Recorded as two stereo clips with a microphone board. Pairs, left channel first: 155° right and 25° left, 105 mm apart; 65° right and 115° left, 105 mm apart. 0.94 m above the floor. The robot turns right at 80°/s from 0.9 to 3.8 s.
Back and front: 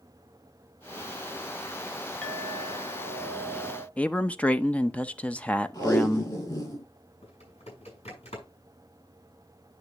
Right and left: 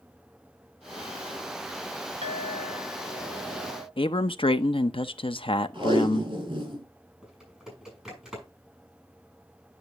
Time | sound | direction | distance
2.2 | a clink | 120° left | 1.6 m
4.0 | a man speaking | 80° right | 0.7 m
5.7 | tape being pulled | 155° left | 5.5 m
7.2 | typing on a keyboard | 165° right | 6 m